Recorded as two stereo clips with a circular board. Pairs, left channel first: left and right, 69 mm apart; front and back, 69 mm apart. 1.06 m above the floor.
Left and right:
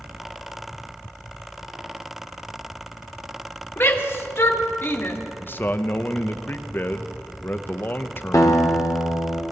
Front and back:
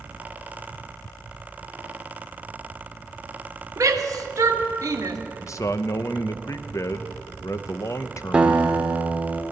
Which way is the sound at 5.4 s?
35° left.